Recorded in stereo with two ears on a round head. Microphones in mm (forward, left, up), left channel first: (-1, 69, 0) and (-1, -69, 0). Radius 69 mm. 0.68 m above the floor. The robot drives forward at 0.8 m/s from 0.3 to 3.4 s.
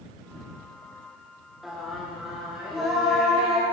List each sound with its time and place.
1.6 s singing: centre (ahead or behind), 1.5 m